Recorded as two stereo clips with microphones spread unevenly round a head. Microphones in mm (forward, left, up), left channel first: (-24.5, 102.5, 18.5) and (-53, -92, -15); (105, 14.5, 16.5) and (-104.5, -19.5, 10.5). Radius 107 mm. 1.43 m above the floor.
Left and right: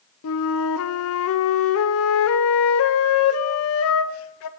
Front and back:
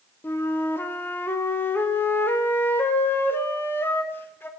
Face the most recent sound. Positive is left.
turn(degrees=90)